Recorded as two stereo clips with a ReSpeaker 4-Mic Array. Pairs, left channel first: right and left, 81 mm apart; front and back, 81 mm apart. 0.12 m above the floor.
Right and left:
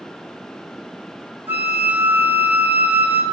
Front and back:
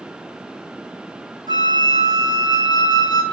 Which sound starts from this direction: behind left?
A flute, at 1.5 s.